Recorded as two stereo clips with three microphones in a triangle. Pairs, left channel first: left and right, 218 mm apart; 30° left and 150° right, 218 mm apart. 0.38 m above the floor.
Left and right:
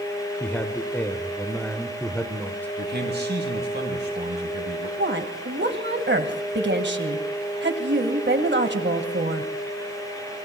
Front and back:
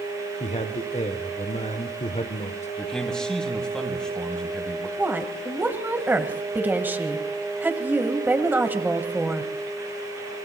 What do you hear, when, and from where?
0.4 s a man speaking: 15° left, 0.9 m
2.8 s a man speaking: 55° right, 2.5 m
5.0 s a woman speaking: 70° right, 1.6 m